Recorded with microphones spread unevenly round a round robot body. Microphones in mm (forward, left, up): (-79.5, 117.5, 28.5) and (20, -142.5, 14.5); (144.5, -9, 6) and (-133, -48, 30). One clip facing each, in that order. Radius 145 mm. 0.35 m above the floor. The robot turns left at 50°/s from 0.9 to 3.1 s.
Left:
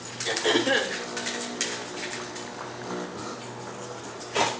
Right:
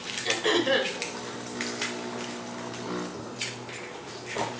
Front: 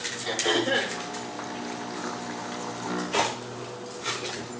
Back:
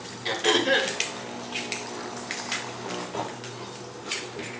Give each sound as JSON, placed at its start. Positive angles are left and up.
{"t": 0.2, "sound": "throat clearing", "azimuth_deg": -140, "distance_m": 1.7}